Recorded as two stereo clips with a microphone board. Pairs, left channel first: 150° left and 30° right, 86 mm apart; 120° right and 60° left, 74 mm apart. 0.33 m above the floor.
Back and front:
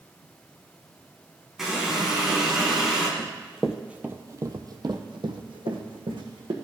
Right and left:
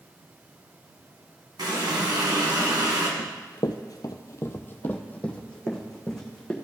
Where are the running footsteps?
140° right, 0.8 m; by 6.5 s 35° right, 1.8 m.